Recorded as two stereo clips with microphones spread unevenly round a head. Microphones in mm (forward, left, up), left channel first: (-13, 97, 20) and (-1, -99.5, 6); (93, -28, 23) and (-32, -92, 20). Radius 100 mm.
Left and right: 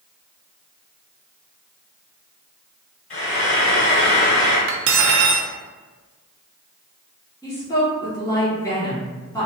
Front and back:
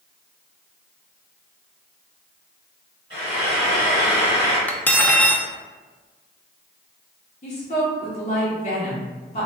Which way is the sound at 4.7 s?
55° right.